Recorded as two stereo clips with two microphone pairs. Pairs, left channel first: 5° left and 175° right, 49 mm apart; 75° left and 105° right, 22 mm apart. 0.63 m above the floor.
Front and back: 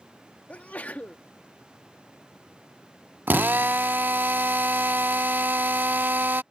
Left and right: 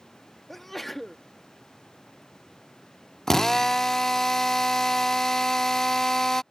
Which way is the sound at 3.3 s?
150° left.